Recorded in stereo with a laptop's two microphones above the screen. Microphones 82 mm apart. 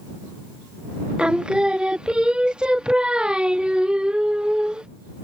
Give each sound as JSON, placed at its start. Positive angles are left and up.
{"t": 1.2, "sound": "singing", "side_deg": -10}